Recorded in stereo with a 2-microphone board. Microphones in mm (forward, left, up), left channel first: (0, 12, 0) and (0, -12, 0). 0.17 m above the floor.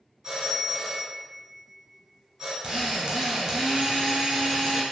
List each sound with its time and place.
0.2 s a phone ringing: 20° right (ahead or behind), 1.0 m
2.6 s a drill: 35° right (ahead or behind), 0.9 m